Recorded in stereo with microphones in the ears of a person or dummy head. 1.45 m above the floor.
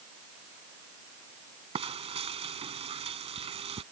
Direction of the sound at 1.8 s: 35° right (ahead or behind).